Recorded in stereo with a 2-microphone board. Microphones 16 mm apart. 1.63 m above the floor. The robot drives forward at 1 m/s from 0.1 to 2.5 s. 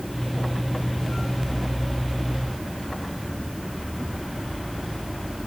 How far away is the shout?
I don't hear a shout.